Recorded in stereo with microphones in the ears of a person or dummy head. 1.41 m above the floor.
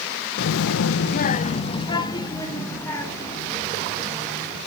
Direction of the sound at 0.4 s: 65° left (ahead or behind).